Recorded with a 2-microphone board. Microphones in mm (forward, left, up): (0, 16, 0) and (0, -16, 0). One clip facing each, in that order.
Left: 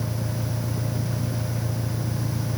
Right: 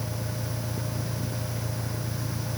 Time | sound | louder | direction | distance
0.0 | an engine running | left 4 dB | 25° left (ahead or behind) | ?